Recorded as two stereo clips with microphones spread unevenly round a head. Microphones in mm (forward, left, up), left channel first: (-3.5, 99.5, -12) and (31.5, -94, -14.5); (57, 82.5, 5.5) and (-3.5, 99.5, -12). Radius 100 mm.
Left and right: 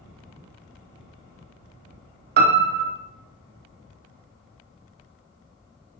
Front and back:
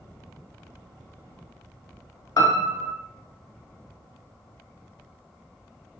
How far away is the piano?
About 0.7 m.